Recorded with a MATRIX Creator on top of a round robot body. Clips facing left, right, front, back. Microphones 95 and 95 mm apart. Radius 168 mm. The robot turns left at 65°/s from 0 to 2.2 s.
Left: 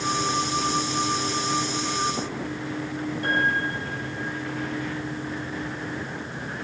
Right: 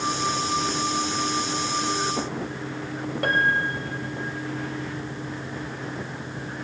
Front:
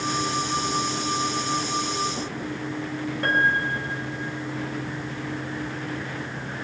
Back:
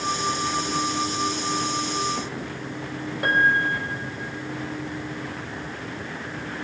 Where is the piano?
100° right, 3 m.